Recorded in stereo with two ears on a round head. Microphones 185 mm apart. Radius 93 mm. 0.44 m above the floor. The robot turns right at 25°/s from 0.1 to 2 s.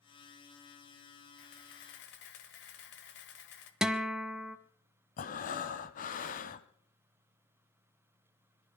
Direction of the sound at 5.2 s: 40° left (ahead or behind).